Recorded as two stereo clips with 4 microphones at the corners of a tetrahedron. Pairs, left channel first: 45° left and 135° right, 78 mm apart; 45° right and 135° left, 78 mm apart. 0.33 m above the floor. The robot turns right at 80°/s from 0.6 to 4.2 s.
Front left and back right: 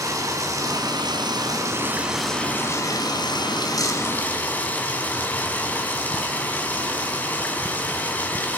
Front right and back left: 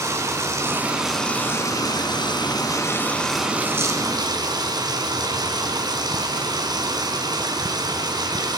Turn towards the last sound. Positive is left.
turn(degrees=110)